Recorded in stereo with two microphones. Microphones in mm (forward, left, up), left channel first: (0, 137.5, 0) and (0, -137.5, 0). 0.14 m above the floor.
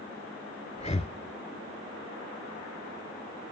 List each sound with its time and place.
0.8 s breathing: 25° left (ahead or behind), 0.5 m